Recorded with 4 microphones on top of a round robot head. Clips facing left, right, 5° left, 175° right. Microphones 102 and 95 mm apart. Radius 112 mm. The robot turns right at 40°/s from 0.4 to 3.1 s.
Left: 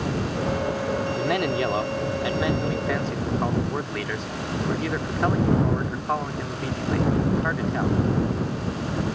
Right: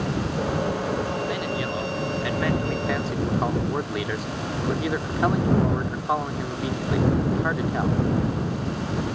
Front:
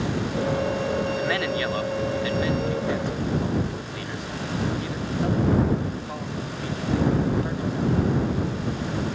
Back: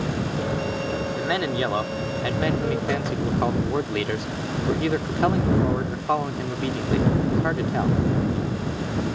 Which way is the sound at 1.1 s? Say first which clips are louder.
Left 3 dB, back 1 dB; 110° left.